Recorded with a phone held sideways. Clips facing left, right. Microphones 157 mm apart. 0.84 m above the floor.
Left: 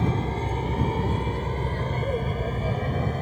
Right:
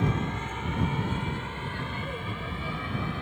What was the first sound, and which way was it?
An aircraft, 35° left (ahead or behind).